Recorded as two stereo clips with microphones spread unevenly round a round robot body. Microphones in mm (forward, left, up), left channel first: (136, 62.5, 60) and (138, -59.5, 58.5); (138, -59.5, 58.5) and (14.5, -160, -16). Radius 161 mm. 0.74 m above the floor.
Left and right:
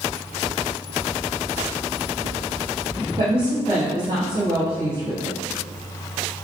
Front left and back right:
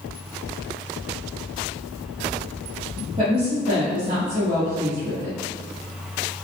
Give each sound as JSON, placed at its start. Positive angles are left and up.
{"t": 3.2, "sound": "a woman speaking", "azimuth_deg": -145, "distance_m": 1.3}